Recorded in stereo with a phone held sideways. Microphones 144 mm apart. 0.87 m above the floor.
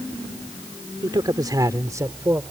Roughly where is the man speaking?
Right.